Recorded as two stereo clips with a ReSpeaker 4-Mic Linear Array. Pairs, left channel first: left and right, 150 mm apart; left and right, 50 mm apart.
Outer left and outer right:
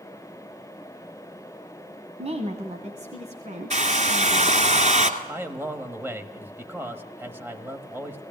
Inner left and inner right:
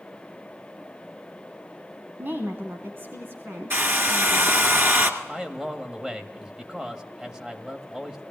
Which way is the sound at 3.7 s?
50° right (ahead or behind).